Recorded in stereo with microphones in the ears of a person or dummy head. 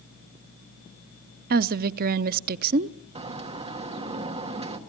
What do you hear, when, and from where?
1.5 s a woman speaking: 50° right (ahead or behind), 0.6 m
3.1 s a bird: 30° right (ahead or behind), 1.5 m